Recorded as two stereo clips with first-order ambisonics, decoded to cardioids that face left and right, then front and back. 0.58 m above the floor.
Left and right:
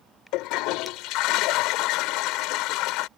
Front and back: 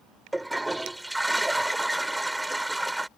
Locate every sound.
0.3 s a toilet flushing: 95° left